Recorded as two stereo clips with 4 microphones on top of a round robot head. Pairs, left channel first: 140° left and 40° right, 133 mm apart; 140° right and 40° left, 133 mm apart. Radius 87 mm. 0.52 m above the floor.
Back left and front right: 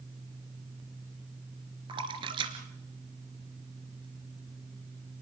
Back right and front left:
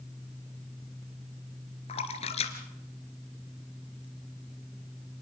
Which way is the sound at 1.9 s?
95° right.